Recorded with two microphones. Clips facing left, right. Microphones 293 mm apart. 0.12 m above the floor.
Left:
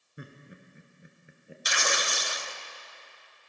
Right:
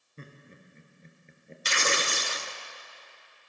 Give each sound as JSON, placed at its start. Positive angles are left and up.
{"t": 0.2, "sound": "laughter", "side_deg": 15, "distance_m": 1.5}
{"t": 1.6, "sound": "tearing paper", "side_deg": -35, "distance_m": 0.5}